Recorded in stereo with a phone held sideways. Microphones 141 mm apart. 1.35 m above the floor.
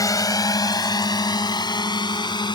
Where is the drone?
25° left (ahead or behind); by 2.6 s 30° left (ahead or behind).